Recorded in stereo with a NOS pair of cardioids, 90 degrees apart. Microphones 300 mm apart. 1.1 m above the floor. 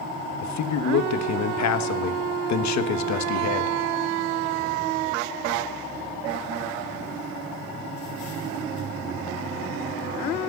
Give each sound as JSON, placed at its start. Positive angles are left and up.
{"t": 0.4, "sound": "a man speaking", "azimuth_deg": 65, "distance_m": 1.3}